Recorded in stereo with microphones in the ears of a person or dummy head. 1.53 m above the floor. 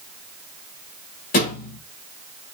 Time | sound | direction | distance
1.3 | a thud | 45° left (ahead or behind) | 2 m